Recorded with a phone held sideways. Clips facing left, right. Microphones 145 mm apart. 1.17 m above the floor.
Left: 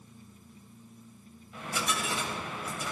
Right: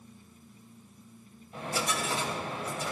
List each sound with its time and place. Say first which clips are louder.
1.5 s a dropped coin: right 2 dB; 35° right (ahead or behind), 2.5 m